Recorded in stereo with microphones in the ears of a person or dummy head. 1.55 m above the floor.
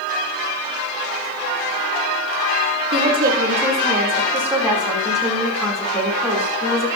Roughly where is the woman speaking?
Right.